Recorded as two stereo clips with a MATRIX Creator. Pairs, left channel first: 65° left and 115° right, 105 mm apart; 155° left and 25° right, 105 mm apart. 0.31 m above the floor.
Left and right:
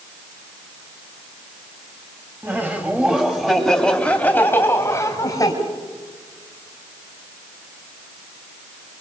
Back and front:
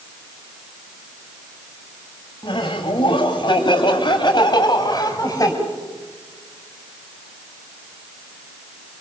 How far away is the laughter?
About 2.5 m.